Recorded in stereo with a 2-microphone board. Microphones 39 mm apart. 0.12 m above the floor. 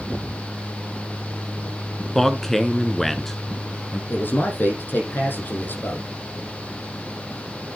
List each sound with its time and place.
2.1 s a man speaking: 10° left (ahead or behind), 1.1 m
4.1 s a man speaking: 60° left (ahead or behind), 5 m